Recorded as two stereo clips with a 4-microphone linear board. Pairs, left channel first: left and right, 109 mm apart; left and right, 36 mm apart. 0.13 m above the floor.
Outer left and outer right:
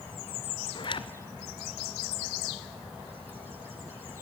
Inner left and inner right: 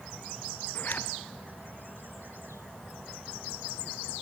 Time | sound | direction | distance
0.8 | a zipper | 50° left (ahead or behind) | 0.7 m